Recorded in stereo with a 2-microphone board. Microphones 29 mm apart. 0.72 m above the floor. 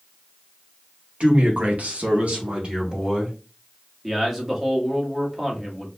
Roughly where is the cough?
No cough in this recording.